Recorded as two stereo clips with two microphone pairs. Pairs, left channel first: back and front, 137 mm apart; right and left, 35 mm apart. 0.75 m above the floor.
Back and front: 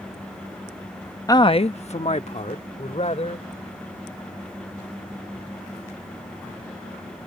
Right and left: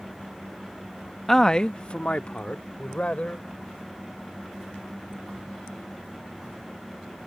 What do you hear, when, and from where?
1.3 s a man speaking: 175° left; by 3.5 s 140° right